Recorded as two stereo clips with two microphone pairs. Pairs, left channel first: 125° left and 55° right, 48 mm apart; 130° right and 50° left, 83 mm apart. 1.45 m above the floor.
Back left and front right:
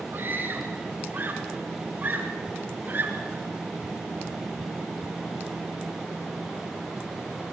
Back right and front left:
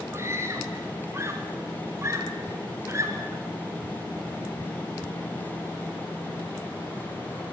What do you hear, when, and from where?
0.1 s a scream: 10° right, 4.5 m; by 3.4 s 5° right, 6.5 m